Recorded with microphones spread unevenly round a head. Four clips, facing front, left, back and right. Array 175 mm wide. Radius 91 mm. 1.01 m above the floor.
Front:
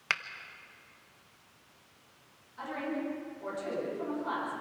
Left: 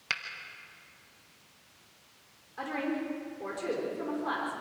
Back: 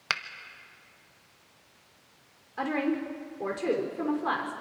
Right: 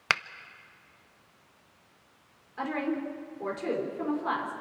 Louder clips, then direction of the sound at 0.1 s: Right 9 dB, back 2 dB; 100° right.